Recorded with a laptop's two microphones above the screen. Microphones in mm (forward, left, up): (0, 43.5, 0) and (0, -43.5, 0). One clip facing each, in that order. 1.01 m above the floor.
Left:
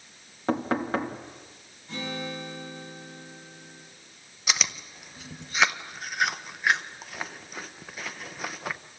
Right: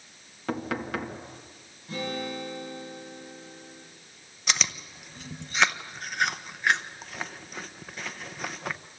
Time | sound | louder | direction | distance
0.5 | knocking | left 5 dB | 35° left (ahead or behind) | 1.4 m
1.9 | a guitar | right 2 dB | 15° right (ahead or behind) | 6 m
4.5 | chewing | even | 5° left (ahead or behind) | 0.6 m